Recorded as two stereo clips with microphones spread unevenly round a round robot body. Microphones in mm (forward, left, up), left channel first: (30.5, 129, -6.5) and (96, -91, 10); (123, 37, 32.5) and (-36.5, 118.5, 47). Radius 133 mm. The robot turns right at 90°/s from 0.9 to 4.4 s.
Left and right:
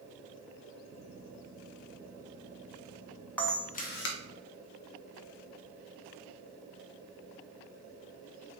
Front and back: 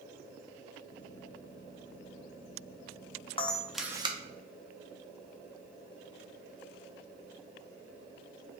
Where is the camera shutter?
25° left, 0.6 m; by 4.2 s 95° left, 0.6 m.